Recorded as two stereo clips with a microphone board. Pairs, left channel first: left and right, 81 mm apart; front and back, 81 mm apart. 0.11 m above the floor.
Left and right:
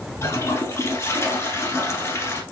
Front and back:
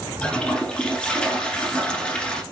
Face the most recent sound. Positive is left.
turn(degrees=65)